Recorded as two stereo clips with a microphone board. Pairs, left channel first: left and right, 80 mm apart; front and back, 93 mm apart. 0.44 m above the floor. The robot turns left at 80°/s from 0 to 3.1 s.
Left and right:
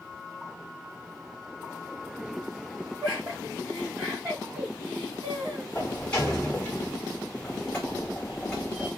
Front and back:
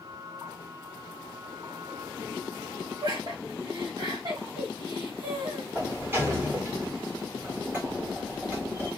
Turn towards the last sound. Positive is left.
turn(degrees=150)